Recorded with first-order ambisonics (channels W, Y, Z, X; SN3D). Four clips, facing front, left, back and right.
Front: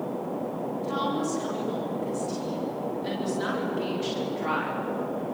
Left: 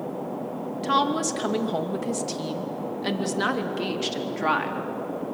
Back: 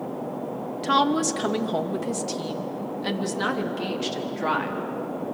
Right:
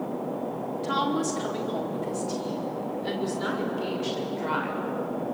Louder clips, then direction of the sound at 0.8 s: Left 4 dB, back 8 dB; 150° left.